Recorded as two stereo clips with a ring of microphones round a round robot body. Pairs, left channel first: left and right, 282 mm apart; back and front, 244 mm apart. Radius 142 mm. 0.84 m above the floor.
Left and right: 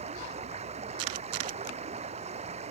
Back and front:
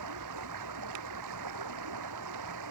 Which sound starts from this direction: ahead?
Running water, at 0.0 s.